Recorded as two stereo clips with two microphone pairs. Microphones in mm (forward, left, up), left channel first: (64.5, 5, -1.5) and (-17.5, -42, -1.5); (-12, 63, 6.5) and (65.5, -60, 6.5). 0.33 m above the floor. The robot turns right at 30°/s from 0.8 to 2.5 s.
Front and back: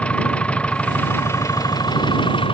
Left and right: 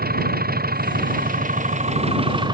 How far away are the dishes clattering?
I don't hear dishes clattering.